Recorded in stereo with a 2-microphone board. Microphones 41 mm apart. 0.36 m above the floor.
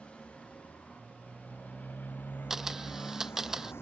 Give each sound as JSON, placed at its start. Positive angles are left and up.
{"t": 0.0, "sound": "a motorcycle", "side_deg": 30}
{"t": 2.5, "sound": "a camera shutter", "side_deg": -10}